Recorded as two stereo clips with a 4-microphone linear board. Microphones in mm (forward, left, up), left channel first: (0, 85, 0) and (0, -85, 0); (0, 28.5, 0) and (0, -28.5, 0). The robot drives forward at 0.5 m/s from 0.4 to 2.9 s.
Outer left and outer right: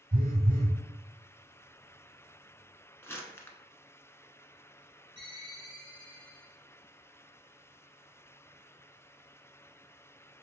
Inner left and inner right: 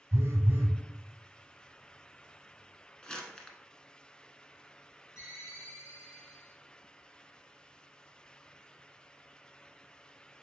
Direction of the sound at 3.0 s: 15° left (ahead or behind).